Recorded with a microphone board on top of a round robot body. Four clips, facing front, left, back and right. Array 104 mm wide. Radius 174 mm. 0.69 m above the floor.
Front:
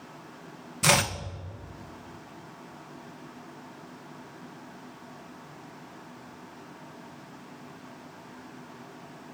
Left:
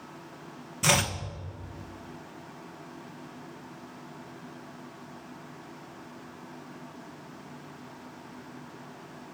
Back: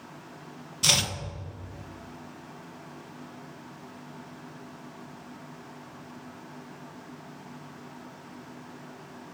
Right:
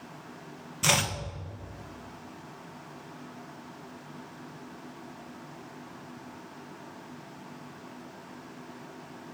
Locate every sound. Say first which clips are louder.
0.8 s chopping: left 2 dB, front 7 dB; 10° left, 1.2 m